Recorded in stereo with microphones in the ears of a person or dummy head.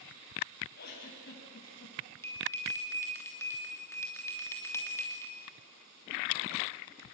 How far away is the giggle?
About 6.5 m.